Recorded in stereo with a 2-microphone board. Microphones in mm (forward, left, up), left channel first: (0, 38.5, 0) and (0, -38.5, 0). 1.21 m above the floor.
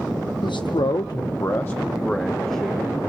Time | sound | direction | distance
0.4 | a man speaking | 75° left (ahead or behind) | 0.9 m